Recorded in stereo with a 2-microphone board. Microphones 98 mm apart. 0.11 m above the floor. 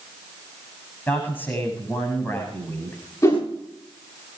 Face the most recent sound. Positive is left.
turn(degrees=35)  # may be behind; listen again after turning